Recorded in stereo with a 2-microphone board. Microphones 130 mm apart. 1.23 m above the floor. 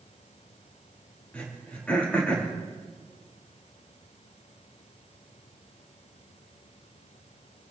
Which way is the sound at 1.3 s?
10° left (ahead or behind).